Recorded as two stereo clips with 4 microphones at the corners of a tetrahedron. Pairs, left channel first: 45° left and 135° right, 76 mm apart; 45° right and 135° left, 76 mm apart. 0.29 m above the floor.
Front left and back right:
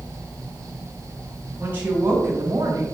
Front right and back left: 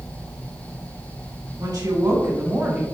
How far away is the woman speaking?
About 2 m.